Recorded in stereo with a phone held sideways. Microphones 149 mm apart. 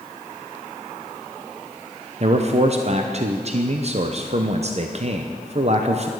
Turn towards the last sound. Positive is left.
turn(degrees=-45)  # may be behind; listen again after turning